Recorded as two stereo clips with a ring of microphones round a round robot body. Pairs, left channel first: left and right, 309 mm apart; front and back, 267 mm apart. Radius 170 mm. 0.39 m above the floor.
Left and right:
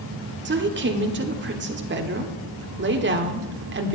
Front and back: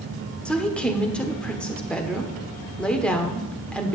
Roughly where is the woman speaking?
Right.